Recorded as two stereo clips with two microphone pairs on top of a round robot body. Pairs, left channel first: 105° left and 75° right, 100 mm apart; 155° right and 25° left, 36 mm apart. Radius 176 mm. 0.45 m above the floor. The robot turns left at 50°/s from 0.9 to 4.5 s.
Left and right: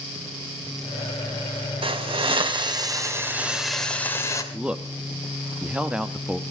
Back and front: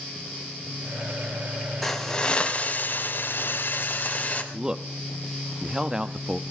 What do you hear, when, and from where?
1.8 s a hiss: 65° right, 2.5 m; by 4.4 s 165° left, 2.5 m
4.5 s a man speaking: 20° right, 1.0 m